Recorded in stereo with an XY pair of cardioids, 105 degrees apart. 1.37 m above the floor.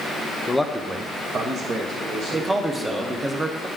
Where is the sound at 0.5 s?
15° left, 0.8 m; by 3.3 s 80° right, 3 m.